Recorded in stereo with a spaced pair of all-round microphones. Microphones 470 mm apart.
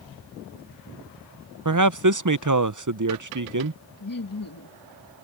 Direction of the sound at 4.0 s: 45° left (ahead or behind).